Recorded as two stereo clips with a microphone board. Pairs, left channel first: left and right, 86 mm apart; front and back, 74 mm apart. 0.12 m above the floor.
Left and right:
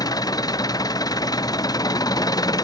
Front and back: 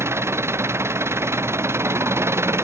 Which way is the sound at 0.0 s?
130° left.